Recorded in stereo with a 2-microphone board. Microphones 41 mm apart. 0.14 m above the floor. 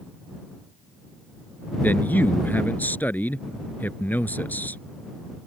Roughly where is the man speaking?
Left.